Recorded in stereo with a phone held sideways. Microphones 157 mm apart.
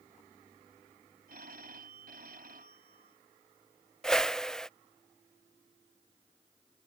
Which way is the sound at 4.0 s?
5° left (ahead or behind).